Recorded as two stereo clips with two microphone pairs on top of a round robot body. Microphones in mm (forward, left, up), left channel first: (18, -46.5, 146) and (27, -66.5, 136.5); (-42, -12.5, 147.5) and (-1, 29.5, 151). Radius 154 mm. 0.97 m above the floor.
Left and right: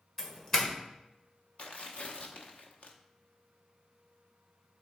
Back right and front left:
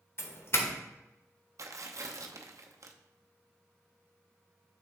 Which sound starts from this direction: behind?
A doorbell, at 0.2 s.